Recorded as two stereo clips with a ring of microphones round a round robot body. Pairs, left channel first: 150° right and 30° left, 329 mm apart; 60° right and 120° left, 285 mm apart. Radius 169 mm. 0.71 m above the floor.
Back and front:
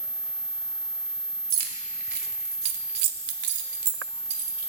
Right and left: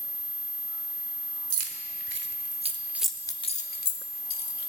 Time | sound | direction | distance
1.5 | keys jangling | 85° left | 1.3 m